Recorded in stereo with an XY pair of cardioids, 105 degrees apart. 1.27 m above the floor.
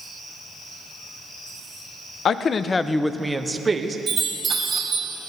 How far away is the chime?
About 2.5 m.